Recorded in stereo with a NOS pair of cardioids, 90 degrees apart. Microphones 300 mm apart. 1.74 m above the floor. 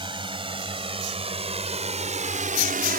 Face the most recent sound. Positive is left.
turn(degrees=-30)